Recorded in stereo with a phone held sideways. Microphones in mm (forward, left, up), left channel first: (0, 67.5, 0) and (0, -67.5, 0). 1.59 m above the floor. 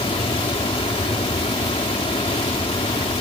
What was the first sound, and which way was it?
A fan, 40° left (ahead or behind).